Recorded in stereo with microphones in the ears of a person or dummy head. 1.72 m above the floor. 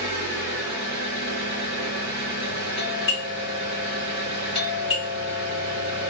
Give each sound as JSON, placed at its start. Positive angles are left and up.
{"t": 0.0, "sound": "an engine running", "side_deg": -30, "distance_m": 1.0}
{"t": 2.8, "sound": "a doorbell", "side_deg": 25, "distance_m": 1.2}